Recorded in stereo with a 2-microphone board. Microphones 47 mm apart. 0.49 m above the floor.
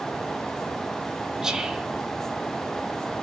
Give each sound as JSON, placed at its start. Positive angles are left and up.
{"t": 1.4, "sound": "whispering", "side_deg": -10, "distance_m": 1.1}